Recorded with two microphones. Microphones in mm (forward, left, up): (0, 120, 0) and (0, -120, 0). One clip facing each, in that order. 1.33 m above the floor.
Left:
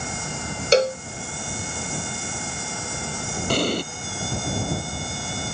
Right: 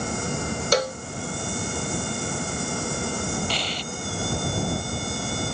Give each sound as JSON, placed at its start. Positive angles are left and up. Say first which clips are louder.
{"t": 0.7, "sound": "a cowbell", "louder": "left 7 dB", "side_deg": 25}
{"t": 3.5, "sound": "an explosion", "louder": "left 9 dB", "side_deg": 50}